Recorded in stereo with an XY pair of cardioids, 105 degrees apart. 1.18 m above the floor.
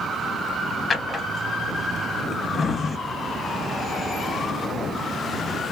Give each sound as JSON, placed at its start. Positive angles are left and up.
{"t": 0.9, "sound": "a drawer", "azimuth_deg": 35, "distance_m": 1.0}